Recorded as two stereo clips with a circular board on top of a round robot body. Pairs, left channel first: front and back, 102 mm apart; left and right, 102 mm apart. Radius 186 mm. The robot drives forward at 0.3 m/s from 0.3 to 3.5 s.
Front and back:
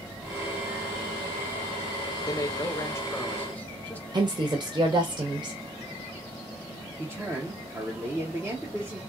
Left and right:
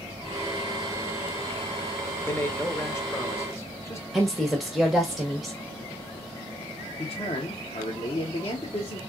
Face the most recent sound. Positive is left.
turn(degrees=115)